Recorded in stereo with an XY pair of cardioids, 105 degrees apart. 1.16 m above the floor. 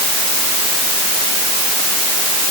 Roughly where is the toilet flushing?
No toilet flushing in this recording.